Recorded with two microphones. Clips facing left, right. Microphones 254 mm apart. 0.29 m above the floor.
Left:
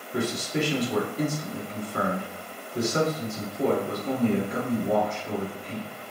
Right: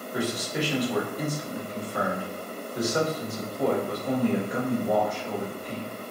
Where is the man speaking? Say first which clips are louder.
Left 2 dB; 30° left (ahead or behind), 2 m.